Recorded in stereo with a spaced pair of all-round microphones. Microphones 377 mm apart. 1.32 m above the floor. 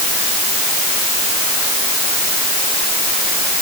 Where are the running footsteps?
I don't hear running footsteps.